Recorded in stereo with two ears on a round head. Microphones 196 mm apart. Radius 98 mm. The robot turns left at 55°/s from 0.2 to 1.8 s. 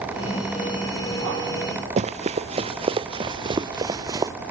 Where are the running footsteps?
30° right (ahead or behind); by 4.3 s 15° right (ahead or behind).